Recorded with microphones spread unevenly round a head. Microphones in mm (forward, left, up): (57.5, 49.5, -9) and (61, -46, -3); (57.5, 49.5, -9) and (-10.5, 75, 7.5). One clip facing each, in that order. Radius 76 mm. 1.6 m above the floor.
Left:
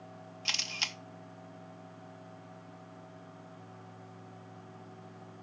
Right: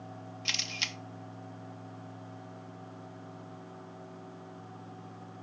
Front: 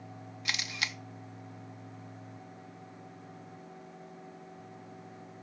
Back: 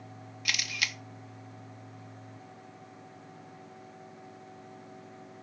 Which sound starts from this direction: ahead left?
A camera shutter, at 0.5 s.